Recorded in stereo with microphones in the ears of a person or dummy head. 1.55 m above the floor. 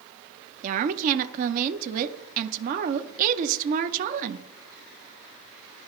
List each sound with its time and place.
0.6 s a woman speaking: 50° right (ahead or behind), 0.5 m